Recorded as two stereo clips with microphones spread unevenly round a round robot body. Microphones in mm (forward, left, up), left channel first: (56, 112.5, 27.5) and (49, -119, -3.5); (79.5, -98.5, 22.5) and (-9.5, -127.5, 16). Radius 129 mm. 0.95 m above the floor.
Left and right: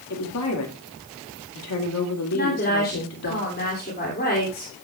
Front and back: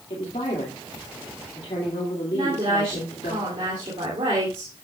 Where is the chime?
No chime in this recording.